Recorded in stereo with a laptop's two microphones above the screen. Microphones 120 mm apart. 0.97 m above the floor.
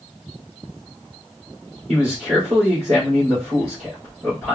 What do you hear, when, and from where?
1.9 s a man speaking: 55° right (ahead or behind), 3 m